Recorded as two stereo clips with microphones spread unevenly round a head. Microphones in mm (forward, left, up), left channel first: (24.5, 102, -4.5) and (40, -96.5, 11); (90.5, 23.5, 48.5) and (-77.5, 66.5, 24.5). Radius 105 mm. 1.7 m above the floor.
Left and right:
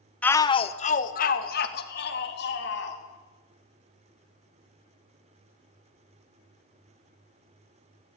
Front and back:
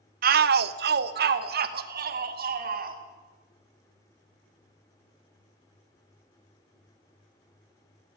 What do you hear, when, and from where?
0.2 s a shout: straight behind, 0.7 m; by 3.0 s 135° left, 3 m